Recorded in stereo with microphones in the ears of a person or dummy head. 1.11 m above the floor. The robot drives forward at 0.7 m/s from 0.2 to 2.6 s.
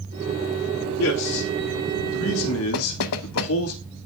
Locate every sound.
1.0 s a man speaking: 80° left, 2.5 m; by 3.7 s 70° left (ahead or behind), 2.5 m
2.7 s knocking: 70° left (ahead or behind), 0.7 m